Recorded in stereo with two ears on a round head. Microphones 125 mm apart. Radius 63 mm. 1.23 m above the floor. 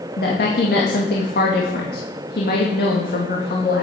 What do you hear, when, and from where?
0.2 s a woman speaking: 75° left (ahead or behind), 2.0 m